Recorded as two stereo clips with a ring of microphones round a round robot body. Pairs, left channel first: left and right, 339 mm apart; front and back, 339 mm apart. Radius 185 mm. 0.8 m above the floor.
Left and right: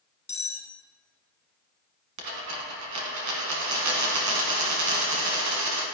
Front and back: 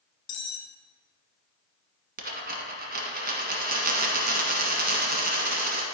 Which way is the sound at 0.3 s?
15° left.